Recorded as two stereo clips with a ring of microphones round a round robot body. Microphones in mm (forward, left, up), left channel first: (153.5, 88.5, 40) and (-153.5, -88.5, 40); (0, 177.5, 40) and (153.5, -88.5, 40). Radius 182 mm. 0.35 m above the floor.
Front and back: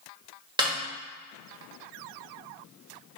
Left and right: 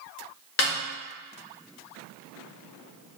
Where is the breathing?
No breathing in this recording.